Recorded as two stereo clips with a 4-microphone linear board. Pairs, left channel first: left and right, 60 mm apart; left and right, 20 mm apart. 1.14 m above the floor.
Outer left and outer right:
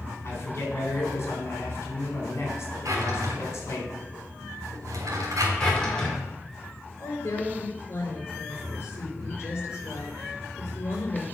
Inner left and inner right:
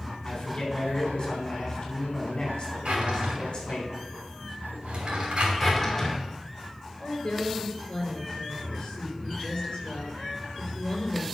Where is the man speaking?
45° left (ahead or behind), 4 m.